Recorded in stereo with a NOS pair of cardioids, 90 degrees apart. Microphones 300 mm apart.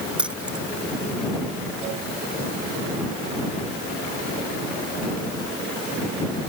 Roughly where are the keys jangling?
Ahead.